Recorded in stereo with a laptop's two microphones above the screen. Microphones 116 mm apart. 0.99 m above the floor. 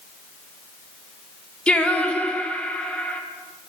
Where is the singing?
10° left (ahead or behind), 0.8 m.